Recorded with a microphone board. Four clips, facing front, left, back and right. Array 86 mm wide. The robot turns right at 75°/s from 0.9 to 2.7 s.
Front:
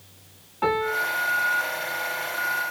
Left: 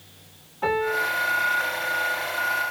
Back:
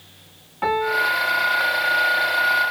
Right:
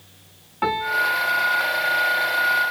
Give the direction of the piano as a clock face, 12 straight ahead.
3 o'clock.